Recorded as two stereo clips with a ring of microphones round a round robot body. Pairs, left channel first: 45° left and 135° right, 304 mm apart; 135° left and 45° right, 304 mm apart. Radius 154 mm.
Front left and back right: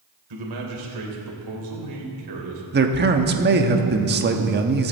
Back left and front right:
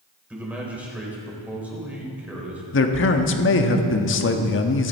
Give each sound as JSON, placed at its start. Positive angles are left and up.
{"t": 0.3, "sound": "a man speaking", "azimuth_deg": -130, "distance_m": 3.0}
{"t": 2.7, "sound": "a man speaking", "azimuth_deg": 175, "distance_m": 1.2}